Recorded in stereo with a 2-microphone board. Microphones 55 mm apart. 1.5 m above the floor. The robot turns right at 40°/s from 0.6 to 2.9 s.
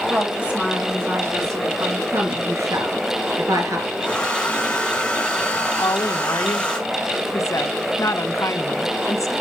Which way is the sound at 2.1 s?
45° right (ahead or behind).